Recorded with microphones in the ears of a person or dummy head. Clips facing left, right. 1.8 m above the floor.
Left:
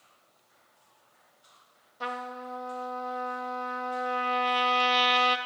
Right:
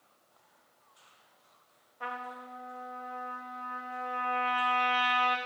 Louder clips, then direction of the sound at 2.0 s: Left 5 dB; 50° left (ahead or behind).